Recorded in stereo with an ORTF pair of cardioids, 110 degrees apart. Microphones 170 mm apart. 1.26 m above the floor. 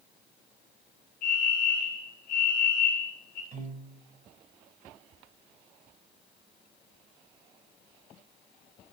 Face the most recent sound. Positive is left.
turn(degrees=-50)